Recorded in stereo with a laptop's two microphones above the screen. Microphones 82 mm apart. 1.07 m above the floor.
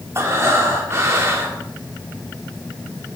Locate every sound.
0.1 s breathing: 35° right (ahead or behind), 1.8 m